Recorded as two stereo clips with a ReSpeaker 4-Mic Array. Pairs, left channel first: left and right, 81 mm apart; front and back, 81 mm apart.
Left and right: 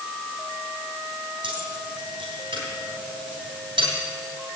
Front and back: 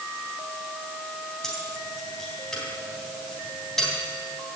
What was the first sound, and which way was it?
Keys jangling, 85° right.